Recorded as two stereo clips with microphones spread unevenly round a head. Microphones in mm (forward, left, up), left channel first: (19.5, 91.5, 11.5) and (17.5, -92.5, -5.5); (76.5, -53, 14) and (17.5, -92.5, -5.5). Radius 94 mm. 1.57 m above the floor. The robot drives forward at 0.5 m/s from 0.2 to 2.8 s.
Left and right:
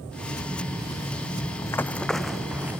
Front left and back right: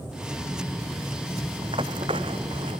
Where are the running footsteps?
160° left; by 2.8 s 175° right.